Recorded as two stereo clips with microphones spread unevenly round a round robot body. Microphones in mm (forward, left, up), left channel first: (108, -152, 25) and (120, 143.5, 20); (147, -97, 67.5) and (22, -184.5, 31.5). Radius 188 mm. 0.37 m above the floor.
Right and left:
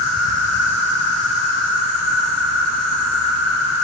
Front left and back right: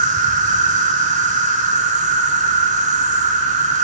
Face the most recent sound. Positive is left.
turn(degrees=-135)